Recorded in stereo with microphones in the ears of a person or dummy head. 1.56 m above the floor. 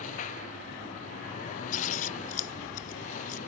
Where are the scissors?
50° left (ahead or behind).